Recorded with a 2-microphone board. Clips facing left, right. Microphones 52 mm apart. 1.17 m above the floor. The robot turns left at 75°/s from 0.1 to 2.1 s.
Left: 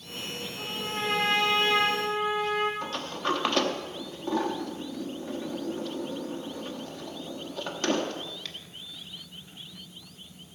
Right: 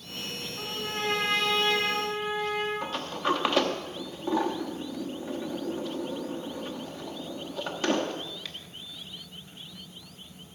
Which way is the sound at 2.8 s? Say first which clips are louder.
Right 1 dB; 5° right (ahead or behind).